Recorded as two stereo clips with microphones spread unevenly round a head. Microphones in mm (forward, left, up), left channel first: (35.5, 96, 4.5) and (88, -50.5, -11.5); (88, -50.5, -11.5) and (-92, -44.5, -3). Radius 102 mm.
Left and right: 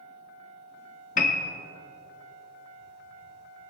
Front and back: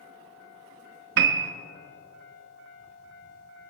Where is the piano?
155° left, 0.6 m.